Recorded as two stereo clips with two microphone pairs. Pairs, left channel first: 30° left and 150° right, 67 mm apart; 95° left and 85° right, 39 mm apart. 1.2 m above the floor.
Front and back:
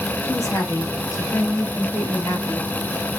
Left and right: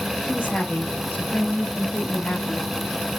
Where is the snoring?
No snoring in this recording.